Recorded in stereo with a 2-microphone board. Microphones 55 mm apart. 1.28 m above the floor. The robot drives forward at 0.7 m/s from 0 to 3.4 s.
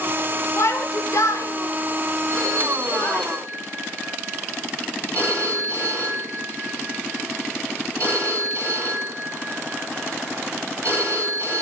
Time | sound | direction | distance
0.6 | a shout | 55° left (ahead or behind) | 1.3 m
2.3 | a phone ringing | 50° right (ahead or behind) | 6 m